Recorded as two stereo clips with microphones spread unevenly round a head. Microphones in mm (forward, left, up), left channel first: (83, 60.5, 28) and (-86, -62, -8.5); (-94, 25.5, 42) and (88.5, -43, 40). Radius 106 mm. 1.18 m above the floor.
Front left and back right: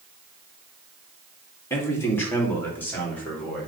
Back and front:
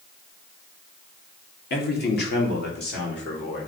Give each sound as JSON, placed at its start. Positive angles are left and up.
{"t": 1.7, "sound": "a man speaking", "azimuth_deg": 115, "distance_m": 2.5}